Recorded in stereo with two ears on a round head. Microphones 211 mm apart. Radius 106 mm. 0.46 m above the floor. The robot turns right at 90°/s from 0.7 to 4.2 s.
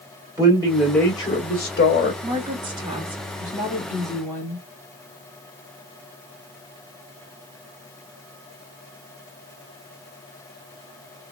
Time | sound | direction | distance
0.4 | a man speaking | 20° right | 2.0 m
2.2 | a woman speaking | 5° right (ahead or behind) | 1.3 m